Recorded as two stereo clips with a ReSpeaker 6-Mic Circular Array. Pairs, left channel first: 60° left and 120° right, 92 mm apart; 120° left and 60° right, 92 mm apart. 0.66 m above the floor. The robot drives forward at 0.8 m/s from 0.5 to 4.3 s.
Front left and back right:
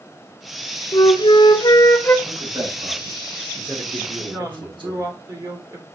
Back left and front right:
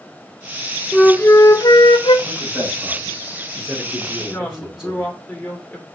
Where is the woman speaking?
170° right, 2 m.